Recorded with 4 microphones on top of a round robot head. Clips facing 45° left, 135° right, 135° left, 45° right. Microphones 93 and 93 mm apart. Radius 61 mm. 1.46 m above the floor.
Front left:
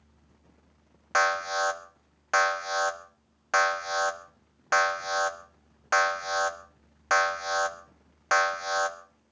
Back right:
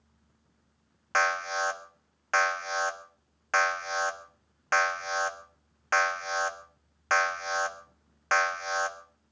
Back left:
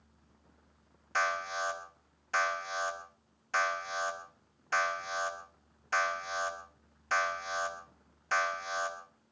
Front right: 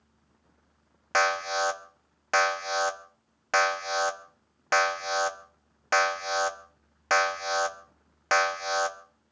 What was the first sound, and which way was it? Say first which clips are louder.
An alarm: front left 2 dB, front right 7 dB; 30° right.